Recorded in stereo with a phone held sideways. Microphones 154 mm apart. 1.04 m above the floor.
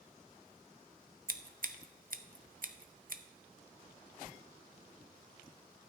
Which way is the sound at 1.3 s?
65° right (ahead or behind).